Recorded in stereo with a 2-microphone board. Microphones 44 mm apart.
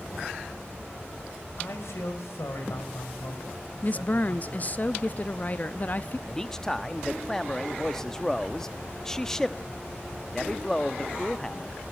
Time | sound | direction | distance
1.6 | a man speaking | 80° left | 4.5 m
3.8 | a woman speaking | 35° left (ahead or behind) | 0.6 m
6.3 | a man speaking | 10° left (ahead or behind) | 0.9 m